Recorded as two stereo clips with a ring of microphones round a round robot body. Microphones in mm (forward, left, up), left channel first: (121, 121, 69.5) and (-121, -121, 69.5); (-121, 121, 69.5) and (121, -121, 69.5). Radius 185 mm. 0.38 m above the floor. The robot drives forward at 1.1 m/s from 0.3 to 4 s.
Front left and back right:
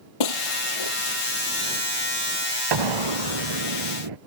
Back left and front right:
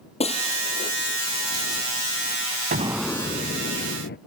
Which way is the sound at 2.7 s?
110° right.